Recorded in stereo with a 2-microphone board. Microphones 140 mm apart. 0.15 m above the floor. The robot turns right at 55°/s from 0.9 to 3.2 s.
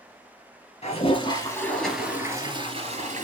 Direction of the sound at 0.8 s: 125° left.